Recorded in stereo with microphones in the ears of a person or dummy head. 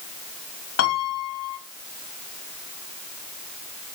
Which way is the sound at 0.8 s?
60° left (ahead or behind).